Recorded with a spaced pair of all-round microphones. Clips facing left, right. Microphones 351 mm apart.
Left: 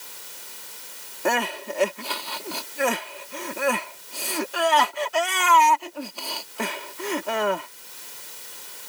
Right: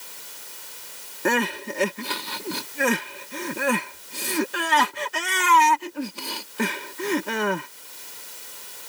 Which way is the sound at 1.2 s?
30° right (ahead or behind).